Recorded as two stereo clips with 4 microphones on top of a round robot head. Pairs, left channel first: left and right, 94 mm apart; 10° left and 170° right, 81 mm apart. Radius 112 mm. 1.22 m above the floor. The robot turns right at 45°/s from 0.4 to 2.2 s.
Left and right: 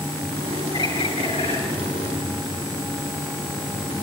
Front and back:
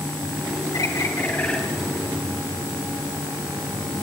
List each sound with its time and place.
0.7 s a bird: 55° left, 8 m; by 1.6 s 95° left, 8 m